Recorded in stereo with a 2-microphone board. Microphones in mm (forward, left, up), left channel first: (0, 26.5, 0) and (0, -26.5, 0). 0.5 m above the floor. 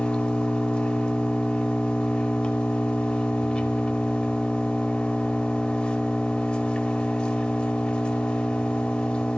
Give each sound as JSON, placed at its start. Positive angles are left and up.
{"t": 0.0, "sound": "an engine running", "side_deg": 20, "distance_m": 1.7}